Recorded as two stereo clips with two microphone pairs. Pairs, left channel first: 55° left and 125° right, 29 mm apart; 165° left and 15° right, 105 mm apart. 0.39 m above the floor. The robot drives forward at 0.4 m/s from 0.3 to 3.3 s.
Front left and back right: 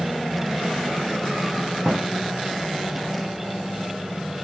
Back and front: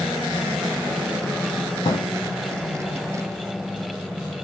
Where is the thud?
165° right, 4.5 m.